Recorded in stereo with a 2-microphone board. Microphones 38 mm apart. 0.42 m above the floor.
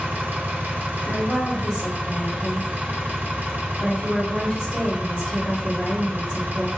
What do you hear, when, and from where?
0.0 s an engine running: 60° right (ahead or behind), 1.0 m
1.1 s a woman speaking: 35° left (ahead or behind), 1.7 m